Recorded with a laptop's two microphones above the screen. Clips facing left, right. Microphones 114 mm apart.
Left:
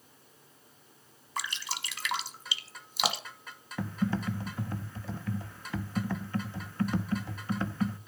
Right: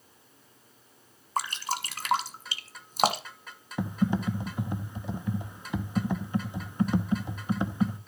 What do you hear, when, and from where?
1.4 s dripping: 45° right (ahead or behind), 1.2 m
3.8 s typing on a keyboard: 20° right (ahead or behind), 0.7 m